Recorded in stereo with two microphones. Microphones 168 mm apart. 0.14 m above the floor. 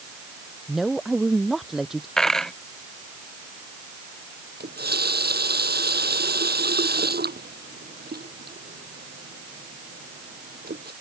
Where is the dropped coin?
5° left (ahead or behind).